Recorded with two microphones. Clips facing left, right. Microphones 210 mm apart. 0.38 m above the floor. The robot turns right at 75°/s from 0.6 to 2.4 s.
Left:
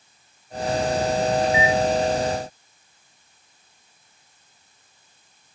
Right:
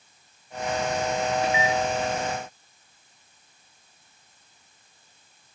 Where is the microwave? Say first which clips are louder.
Left 4 dB; 10° right (ahead or behind), 4.5 m; by 1.8 s 40° right (ahead or behind), 4.5 m.